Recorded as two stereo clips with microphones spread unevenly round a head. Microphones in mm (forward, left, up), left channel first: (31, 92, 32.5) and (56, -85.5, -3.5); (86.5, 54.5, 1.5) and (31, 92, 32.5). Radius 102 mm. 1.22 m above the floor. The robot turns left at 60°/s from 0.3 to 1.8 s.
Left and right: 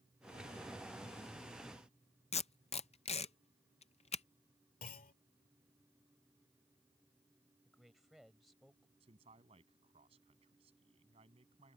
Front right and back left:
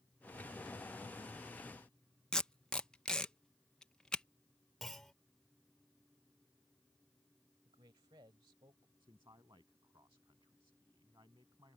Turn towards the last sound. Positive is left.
turn(degrees=-150)